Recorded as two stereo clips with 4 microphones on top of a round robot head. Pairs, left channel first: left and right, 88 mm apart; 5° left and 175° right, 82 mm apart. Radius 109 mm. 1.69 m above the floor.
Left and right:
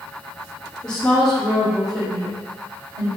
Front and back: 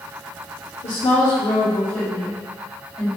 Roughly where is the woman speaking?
Ahead.